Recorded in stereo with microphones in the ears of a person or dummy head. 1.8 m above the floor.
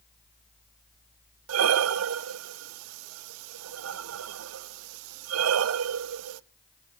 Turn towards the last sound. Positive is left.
turn(degrees=-85)